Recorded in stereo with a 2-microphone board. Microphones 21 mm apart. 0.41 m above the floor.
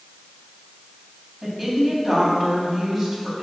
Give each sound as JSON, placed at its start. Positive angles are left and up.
{"t": 1.4, "sound": "a woman speaking", "side_deg": 0, "distance_m": 3.0}